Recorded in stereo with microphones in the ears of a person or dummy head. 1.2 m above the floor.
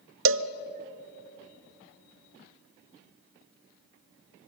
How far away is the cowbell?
About 0.6 m.